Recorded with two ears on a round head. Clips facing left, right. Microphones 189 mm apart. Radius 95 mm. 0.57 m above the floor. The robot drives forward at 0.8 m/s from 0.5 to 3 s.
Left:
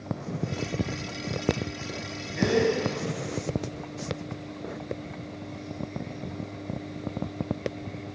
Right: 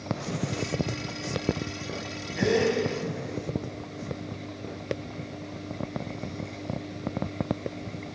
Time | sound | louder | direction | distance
2.4 | a gasp | even | centre (ahead or behind) | 2.5 m